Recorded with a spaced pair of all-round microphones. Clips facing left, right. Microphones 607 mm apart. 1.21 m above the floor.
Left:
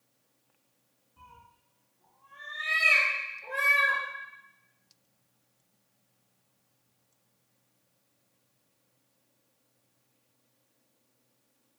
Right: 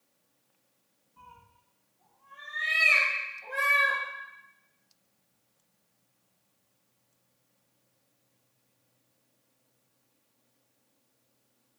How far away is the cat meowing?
About 0.8 m.